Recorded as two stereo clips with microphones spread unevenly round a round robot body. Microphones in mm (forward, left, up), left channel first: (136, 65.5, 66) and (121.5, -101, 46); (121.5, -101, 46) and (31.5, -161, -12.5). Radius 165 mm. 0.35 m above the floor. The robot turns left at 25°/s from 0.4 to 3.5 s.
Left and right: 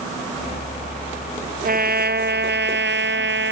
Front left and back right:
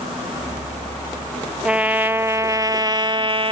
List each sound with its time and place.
1.6 s a trumpet: 65° right; by 3.5 s 110° right